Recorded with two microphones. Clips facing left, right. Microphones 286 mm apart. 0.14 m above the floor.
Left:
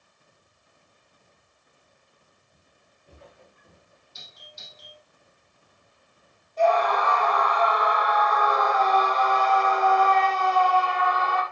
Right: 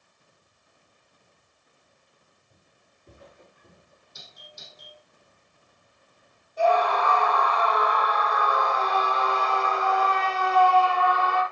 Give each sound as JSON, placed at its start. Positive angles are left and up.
{"t": 2.5, "sound": "footsteps", "side_deg": -60, "distance_m": 7.0}
{"t": 4.2, "sound": "a doorbell", "side_deg": -55, "distance_m": 6.5}
{"t": 6.6, "sound": "a scream", "side_deg": -10, "distance_m": 4.5}